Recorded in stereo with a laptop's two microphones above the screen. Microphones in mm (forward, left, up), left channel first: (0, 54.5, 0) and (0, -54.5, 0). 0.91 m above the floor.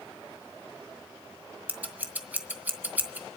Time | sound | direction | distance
1.7 | scissors | 15° right (ahead or behind) | 0.6 m